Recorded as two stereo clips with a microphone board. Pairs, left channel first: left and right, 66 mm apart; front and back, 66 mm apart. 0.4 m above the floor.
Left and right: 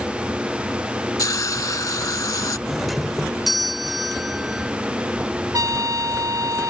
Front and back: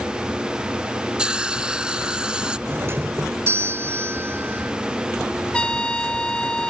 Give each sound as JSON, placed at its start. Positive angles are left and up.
{"t": 1.2, "sound": "a hiss", "azimuth_deg": 105}
{"t": 2.7, "sound": "a doorbell", "azimuth_deg": 180}
{"t": 5.5, "sound": "a trumpet", "azimuth_deg": -75}